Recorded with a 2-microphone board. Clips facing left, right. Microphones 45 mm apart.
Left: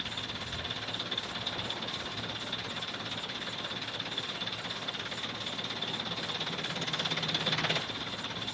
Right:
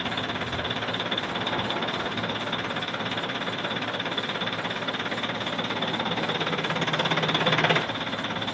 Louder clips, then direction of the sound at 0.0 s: Right 10 dB; 45° right (ahead or behind).